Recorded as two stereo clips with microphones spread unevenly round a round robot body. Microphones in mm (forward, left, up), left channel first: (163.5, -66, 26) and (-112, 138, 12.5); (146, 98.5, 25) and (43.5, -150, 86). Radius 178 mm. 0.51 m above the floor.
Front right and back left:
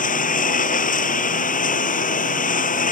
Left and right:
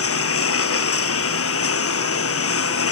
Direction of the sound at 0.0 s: 30° left.